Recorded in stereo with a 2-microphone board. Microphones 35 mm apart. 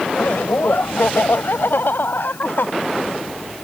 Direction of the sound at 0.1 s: 80° left.